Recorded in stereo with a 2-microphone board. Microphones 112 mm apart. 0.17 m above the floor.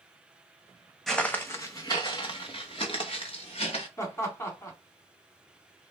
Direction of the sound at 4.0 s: 25° left (ahead or behind).